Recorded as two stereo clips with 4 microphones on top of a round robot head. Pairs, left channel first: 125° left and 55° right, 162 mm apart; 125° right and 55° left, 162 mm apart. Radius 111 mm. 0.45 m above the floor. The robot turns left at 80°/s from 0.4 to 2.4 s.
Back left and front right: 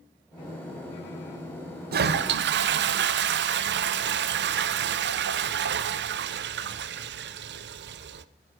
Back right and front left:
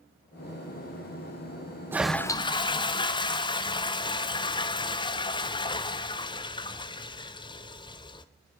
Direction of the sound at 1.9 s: 25° right.